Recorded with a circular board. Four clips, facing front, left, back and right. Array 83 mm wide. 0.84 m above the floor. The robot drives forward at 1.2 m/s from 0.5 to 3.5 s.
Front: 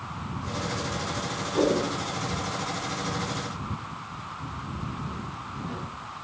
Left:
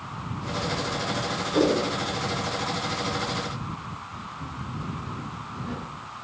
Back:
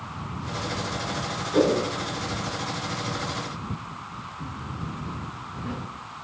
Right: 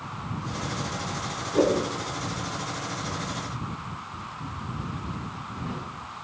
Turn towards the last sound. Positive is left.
turn(degrees=-175)